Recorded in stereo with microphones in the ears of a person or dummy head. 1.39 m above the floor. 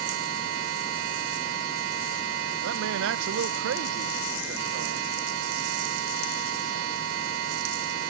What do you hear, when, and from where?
0.0 s a machine running: 80° right
2.6 s a man speaking: 65° right (ahead or behind)